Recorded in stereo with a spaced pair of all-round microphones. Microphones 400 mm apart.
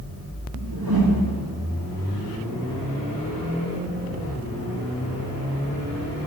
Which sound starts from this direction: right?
A whoosh, at 0.5 s.